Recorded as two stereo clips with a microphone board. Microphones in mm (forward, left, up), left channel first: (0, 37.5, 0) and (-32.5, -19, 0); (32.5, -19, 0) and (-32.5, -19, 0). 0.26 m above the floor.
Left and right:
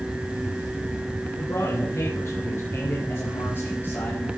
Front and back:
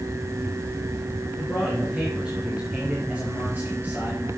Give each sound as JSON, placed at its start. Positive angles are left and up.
{"t": 1.4, "sound": "a man speaking", "azimuth_deg": 95, "distance_m": 4.0}